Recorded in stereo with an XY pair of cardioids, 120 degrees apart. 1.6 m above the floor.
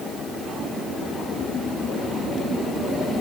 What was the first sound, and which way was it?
Only background noise.